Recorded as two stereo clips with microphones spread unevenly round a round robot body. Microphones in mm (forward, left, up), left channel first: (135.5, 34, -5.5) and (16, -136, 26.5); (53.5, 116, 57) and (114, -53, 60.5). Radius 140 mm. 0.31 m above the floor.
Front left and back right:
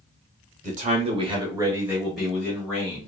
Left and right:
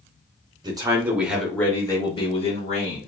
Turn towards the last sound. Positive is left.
turn(degrees=115)